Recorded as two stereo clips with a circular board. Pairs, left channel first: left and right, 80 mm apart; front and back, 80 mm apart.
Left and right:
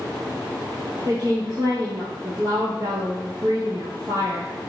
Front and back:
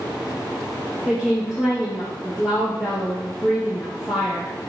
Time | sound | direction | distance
1.1 | a woman speaking | 100° right | 2.0 m